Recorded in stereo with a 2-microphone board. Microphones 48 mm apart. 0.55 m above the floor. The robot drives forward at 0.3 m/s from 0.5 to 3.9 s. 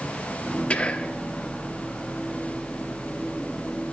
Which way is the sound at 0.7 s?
25° left (ahead or behind).